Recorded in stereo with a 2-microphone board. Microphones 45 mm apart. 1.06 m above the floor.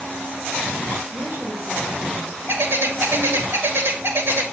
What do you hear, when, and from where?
1.1 s a woman speaking: 50° right (ahead or behind), 4 m; by 3.5 s 80° right, 5.5 m
2.5 s a bird: 55° right (ahead or behind), 2 m